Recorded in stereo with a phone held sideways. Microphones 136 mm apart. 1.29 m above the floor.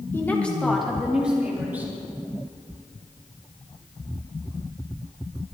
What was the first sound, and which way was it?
A woman speaking, 15° left (ahead or behind).